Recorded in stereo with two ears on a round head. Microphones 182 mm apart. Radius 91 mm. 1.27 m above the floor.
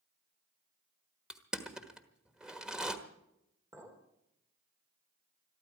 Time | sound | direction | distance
1.3 | crushing | 5° right (ahead or behind) | 1.3 m
3.7 | a clink | 15° right (ahead or behind) | 3 m